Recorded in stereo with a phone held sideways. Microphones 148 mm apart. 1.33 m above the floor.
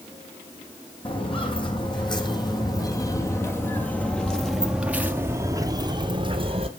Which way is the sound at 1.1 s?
40° left (ahead or behind).